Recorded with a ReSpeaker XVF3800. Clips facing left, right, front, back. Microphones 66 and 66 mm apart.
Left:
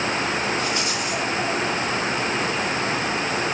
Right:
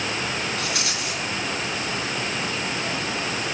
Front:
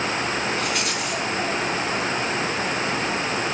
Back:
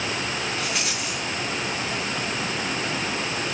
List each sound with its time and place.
0.6 s a rattle: 90° right, 8.5 m